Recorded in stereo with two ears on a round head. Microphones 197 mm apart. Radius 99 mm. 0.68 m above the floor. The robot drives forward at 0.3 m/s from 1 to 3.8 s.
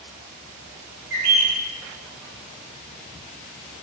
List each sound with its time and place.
1.1 s a bird: 45° right (ahead or behind), 0.6 m; by 1.6 s 40° right (ahead or behind), 0.7 m